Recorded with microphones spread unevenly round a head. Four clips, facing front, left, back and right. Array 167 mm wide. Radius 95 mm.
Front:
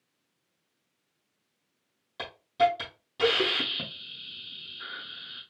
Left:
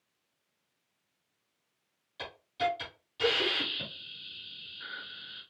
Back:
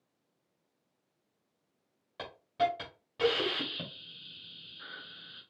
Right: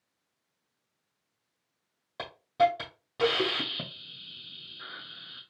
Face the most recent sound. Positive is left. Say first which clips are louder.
# right 8 dB, front 6 dB
turn(degrees=-90)